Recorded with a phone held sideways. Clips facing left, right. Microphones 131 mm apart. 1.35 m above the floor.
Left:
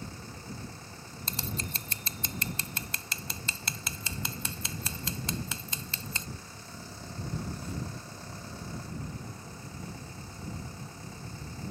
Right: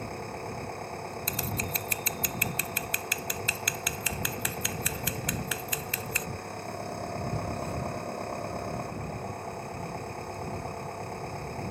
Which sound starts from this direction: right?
An engine running, at 0.0 s.